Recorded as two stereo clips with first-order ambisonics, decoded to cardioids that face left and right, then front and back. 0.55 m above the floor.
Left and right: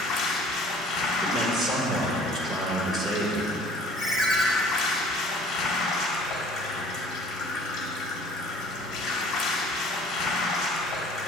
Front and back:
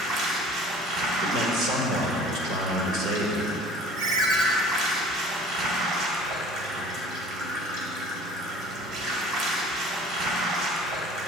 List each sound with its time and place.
0.0 s running water: 135° left, 1.1 m
1.2 s a man speaking: 165° right, 1.5 m
4.0 s a ringtone: 175° right, 1.3 m